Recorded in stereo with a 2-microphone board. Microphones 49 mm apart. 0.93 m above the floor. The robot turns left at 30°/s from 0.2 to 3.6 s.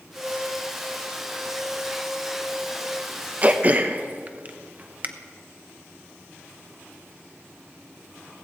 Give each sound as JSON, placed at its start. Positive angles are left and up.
{"t": 3.4, "sound": "throat clearing", "side_deg": -30, "distance_m": 0.7}